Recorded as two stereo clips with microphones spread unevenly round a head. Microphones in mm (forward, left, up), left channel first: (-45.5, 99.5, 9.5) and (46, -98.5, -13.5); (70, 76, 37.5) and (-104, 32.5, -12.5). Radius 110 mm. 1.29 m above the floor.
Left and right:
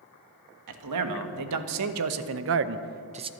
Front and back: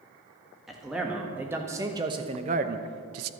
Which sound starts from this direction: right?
A man speaking, at 0.7 s.